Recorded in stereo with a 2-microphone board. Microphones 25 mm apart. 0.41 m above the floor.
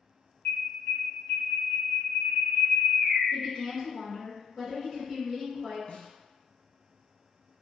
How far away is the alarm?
About 0.9 m.